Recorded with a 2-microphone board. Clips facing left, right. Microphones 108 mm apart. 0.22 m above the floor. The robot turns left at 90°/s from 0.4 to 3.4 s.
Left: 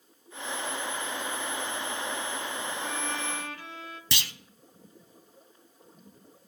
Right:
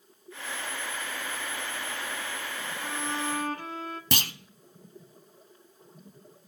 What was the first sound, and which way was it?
A violin, 5° left.